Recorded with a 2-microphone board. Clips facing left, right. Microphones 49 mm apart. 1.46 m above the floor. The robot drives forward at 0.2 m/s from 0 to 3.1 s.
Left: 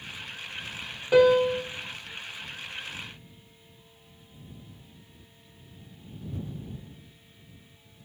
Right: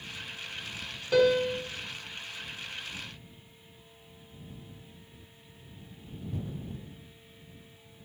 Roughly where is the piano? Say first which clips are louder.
Left 5 dB; left.